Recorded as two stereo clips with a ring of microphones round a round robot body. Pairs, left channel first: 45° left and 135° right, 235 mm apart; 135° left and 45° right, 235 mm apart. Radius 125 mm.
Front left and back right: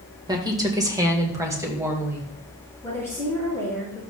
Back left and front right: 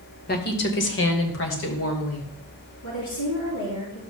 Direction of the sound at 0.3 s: 160° left.